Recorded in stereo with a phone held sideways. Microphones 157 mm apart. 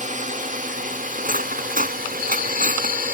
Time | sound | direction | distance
0.0 | a drone | 55° right (ahead or behind) | ?
1.2 | cutlery clinking | 65° right (ahead or behind) | ?